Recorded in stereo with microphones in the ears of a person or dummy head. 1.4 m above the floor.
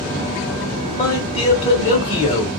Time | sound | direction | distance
0.9 | a man speaking | 30° left (ahead or behind) | 1.0 m